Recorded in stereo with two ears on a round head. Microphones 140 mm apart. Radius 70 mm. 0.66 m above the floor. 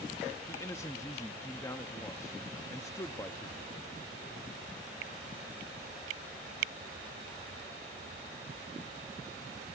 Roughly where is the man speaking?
Centre.